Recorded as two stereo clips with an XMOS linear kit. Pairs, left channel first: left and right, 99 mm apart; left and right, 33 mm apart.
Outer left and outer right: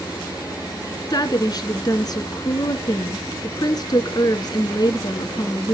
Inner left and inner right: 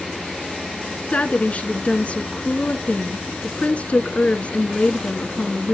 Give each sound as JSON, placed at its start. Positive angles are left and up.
{"t": 1.1, "sound": "a woman speaking", "side_deg": 40, "distance_m": 1.7}